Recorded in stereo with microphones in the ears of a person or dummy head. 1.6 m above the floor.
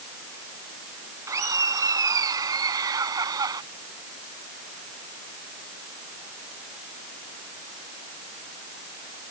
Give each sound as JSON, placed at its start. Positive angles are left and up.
{"t": 1.3, "sound": "laughter", "side_deg": -15}